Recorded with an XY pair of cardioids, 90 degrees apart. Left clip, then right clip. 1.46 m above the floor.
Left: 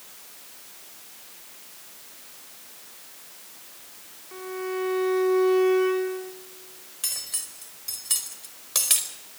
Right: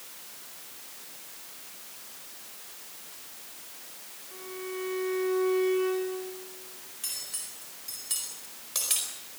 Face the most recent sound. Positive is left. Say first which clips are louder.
# left 5 dB
turn(degrees=55)